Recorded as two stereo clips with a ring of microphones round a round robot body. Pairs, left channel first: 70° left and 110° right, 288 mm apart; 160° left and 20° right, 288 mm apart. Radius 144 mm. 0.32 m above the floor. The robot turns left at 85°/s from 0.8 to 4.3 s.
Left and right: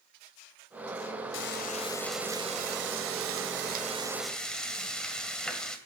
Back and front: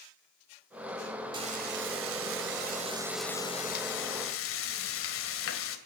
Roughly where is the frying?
Ahead left.